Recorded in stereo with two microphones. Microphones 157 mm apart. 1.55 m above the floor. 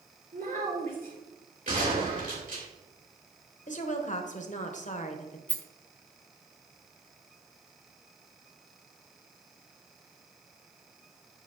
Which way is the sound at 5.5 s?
10° left (ahead or behind).